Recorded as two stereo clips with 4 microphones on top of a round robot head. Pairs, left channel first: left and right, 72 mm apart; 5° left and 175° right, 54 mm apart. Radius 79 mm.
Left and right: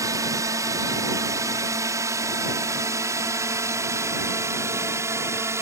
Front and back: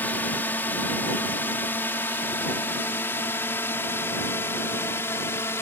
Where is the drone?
55° right; by 5.6 s 40° right.